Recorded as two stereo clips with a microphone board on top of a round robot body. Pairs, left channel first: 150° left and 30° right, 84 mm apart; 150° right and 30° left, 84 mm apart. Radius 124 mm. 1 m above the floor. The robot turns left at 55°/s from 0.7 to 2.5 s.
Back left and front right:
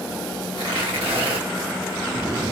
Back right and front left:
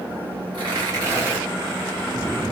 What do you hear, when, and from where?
0.5 s tearing paper: straight ahead, 1.5 m; by 1.4 s 40° right, 1.5 m